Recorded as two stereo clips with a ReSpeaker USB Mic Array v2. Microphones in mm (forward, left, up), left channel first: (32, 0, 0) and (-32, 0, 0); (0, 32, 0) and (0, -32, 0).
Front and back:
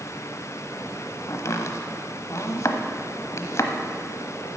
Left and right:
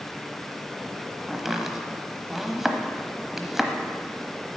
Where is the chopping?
5° right, 1.0 m.